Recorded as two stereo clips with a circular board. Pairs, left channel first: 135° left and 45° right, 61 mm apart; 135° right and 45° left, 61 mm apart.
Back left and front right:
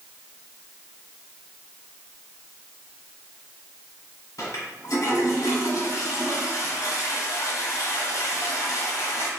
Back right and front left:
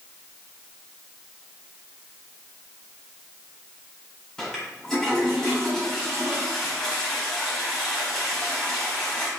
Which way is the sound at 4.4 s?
145° left.